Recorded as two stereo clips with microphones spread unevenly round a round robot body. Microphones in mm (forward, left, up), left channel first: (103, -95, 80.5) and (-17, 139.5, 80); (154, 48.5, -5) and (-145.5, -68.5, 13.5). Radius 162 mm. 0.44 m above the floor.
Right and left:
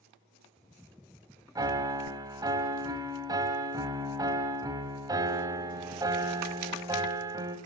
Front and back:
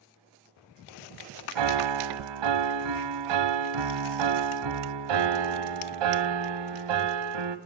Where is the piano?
165° right, 1.5 m.